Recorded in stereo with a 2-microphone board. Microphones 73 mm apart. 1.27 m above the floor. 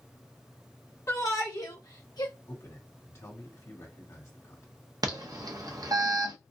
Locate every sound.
1.1 s a shout: 45° left (ahead or behind), 1.3 m; by 2.3 s 75° left (ahead or behind), 1.2 m
2.5 s a man speaking: 45° left (ahead or behind), 1.8 m
5.0 s an alarm: 60° right (ahead or behind), 0.7 m